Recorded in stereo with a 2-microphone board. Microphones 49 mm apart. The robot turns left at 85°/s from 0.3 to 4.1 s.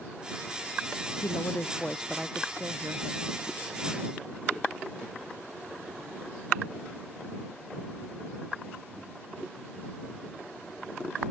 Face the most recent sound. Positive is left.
turn(degrees=-175)